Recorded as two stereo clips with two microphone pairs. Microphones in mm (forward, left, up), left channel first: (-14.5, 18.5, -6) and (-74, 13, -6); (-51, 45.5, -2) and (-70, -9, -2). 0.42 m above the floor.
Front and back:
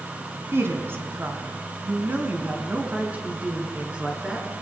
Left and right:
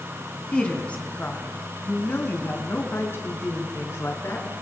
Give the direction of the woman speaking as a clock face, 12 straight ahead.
7 o'clock.